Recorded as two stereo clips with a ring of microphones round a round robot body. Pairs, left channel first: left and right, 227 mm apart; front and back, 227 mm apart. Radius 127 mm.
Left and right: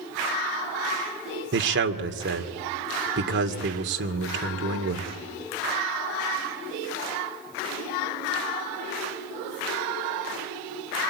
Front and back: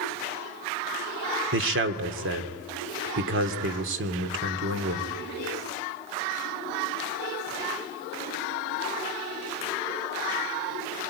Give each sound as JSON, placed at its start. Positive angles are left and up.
{"t": 1.5, "sound": "a man speaking", "azimuth_deg": -135, "distance_m": 2.0}